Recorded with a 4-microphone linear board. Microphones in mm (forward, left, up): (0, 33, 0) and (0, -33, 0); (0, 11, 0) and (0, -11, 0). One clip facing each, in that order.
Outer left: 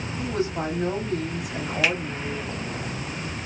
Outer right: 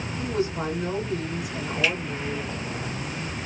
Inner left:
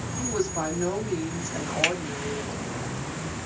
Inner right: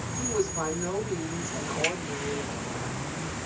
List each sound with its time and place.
0.2 s a woman speaking: 60° left (ahead or behind), 2 m
1.8 s a finger snap: 70° left (ahead or behind), 2.5 m